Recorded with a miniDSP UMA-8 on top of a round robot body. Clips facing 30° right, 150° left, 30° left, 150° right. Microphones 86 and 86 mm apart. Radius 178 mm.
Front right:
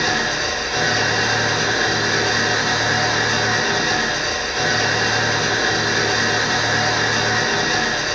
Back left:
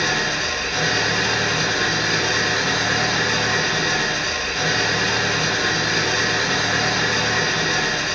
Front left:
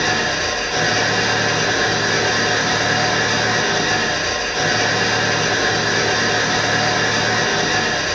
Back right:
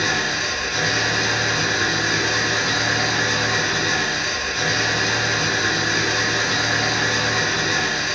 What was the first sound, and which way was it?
An engine running, 30° left.